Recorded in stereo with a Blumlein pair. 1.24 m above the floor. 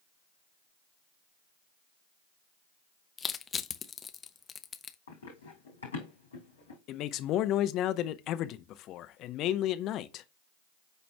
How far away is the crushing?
About 0.8 m.